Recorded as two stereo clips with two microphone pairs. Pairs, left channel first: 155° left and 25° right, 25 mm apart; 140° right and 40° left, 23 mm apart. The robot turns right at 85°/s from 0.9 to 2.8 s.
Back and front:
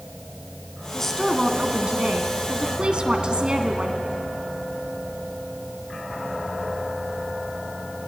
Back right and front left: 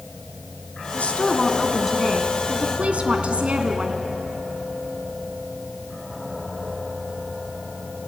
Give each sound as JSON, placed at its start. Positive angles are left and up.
{"t": 0.9, "sound": "a woman speaking", "azimuth_deg": -140, "distance_m": 2.0}